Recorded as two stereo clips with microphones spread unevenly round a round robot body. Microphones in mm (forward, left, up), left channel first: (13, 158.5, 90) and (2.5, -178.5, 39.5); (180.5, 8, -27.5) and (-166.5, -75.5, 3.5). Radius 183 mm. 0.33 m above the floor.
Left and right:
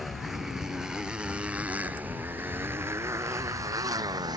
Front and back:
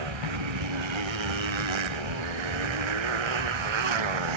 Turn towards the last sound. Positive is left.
turn(degrees=-170)